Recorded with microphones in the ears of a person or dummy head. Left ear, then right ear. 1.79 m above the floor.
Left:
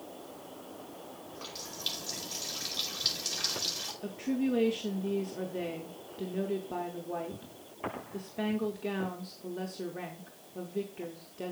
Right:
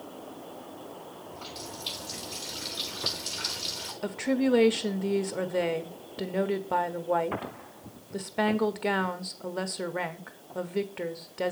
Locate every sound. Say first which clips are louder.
1.3 s a running tap: right 2 dB; 55° left (ahead or behind), 5.5 m
4.0 s a woman speaking: right 7 dB; 20° right (ahead or behind), 0.6 m